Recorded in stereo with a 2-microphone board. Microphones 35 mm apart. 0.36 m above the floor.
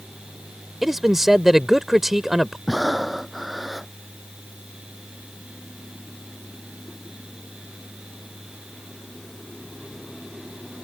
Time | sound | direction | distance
0.8 | a man speaking | 10° right (ahead or behind) | ?
2.7 | breathing | centre (ahead or behind) | ?